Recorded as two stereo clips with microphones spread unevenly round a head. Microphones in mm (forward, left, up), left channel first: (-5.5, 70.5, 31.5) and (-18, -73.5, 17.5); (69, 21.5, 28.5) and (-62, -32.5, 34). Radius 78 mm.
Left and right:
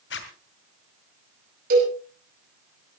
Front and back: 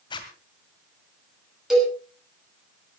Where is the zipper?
85° left, 2 m.